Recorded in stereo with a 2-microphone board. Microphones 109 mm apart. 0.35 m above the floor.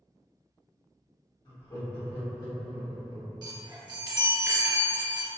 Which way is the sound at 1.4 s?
45° left (ahead or behind).